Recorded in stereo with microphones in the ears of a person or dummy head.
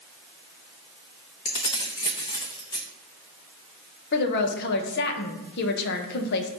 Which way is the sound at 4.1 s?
60° left (ahead or behind).